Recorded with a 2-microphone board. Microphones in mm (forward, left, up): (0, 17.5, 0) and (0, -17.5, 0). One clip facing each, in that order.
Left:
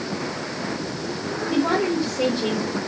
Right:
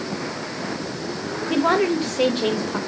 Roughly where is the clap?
No clap in this recording.